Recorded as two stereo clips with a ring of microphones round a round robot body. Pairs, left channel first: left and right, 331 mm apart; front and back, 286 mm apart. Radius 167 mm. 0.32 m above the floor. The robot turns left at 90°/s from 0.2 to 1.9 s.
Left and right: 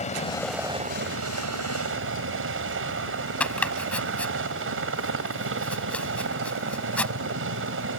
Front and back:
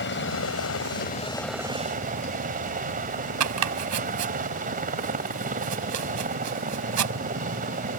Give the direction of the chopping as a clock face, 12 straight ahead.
6 o'clock.